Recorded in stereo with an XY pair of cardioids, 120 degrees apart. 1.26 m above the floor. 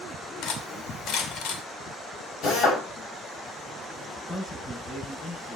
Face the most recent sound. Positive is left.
turn(degrees=35)